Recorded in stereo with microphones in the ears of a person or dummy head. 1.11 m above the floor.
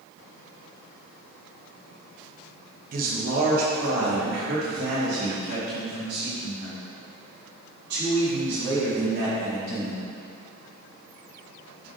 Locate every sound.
2.9 s a man speaking: 45° right (ahead or behind), 0.9 m; by 10.0 s 60° right (ahead or behind), 6 m